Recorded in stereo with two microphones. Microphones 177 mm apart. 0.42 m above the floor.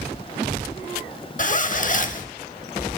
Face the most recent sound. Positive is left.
turn(degrees=50)  # may be behind; listen again after turning